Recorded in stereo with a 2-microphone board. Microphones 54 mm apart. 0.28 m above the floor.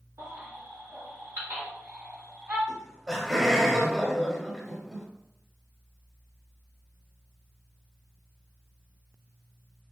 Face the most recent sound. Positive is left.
turn(degrees=-5)  # may be behind; listen again after turning